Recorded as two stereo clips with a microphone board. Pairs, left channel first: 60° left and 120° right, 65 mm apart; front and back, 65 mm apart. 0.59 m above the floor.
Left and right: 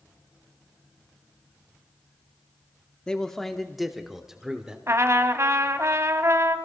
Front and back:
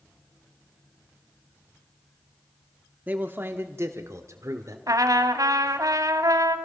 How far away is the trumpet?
About 1.2 m.